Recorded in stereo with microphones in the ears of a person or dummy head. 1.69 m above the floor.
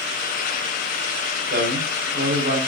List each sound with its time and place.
1.5 s a man speaking: 60° right (ahead or behind), 6 m